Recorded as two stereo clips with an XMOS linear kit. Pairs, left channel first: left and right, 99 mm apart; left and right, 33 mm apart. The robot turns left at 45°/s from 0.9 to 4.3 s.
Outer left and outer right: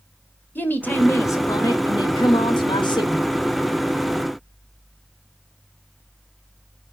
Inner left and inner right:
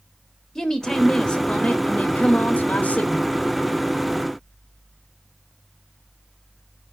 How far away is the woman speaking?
About 1.3 m.